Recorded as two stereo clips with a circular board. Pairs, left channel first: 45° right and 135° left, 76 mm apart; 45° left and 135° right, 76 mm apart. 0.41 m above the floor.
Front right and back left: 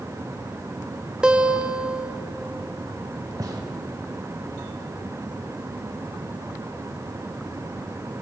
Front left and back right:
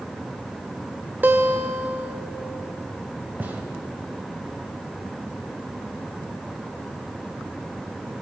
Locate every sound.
1.2 s a guitar: 160° right, 0.6 m
3.4 s a gunshot: 160° left, 1.4 m